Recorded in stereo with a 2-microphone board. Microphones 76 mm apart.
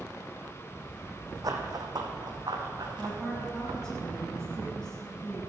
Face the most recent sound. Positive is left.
turn(degrees=10)  # may be behind; listen again after turning